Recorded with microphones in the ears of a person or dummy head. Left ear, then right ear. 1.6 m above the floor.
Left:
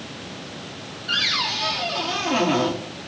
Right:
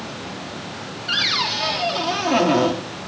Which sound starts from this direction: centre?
A cupboard door, at 1.1 s.